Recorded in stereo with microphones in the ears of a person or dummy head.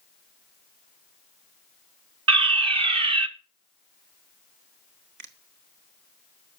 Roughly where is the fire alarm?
Right.